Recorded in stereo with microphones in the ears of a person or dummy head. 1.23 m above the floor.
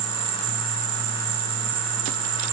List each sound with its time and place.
0.0 s an insect: 60° right (ahead or behind), 3.5 m